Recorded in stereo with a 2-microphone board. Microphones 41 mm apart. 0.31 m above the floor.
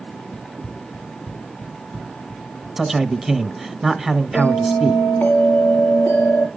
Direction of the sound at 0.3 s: 40° left (ahead or behind).